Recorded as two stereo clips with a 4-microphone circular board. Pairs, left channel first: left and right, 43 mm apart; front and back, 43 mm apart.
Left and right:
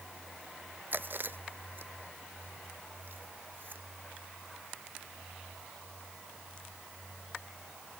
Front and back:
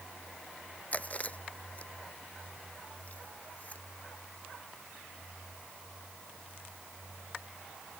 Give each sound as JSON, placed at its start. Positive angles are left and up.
{"t": 0.9, "sound": "chewing", "azimuth_deg": -55}